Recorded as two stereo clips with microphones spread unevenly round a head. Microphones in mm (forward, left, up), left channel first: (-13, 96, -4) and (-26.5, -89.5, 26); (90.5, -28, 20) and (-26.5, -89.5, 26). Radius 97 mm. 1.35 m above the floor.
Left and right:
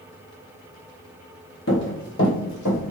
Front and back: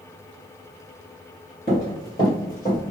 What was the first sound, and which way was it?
Running footsteps, 75° left.